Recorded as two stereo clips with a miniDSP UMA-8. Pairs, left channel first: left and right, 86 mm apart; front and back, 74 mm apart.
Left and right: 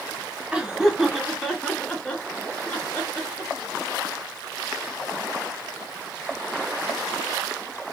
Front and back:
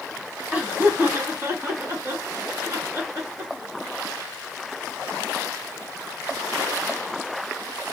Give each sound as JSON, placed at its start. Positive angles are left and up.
{"t": 0.5, "sound": "laughter", "azimuth_deg": -145, "distance_m": 1.1}